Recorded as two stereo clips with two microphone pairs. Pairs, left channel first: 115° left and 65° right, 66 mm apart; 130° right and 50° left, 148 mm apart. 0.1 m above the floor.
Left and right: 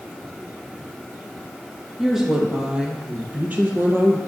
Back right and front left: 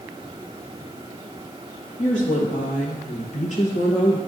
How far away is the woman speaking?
About 2.5 m.